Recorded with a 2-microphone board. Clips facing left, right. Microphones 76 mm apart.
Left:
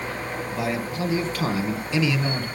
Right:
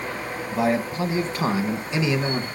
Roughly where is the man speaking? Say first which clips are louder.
Right 6 dB; right.